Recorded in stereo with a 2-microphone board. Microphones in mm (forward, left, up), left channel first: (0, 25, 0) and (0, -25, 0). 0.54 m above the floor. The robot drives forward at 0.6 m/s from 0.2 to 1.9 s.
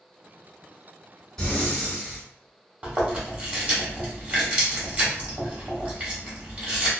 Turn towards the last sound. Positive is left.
turn(degrees=-30)  # may be behind; listen again after turning